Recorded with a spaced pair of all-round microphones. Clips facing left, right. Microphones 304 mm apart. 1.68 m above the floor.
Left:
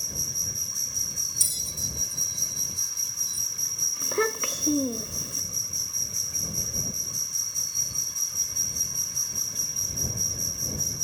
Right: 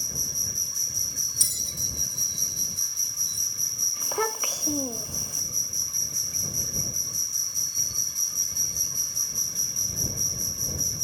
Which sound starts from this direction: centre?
A bell, at 1.4 s.